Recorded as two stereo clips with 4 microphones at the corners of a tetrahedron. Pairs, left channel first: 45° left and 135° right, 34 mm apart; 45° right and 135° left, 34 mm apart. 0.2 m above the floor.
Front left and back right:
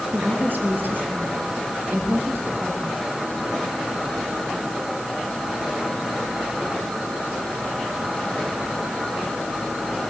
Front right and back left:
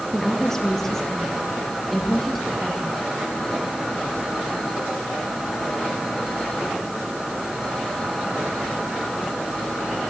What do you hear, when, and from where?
0.1 s a woman speaking: 110° right, 3.5 m; by 3.0 s 135° right, 7.5 m